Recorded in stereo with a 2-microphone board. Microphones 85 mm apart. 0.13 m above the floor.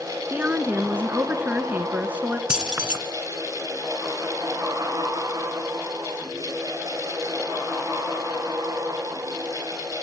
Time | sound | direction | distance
0.3 | a woman speaking | 20° right (ahead or behind) | 1.2 m
2.5 | keys jangling | 10° right (ahead or behind) | 0.9 m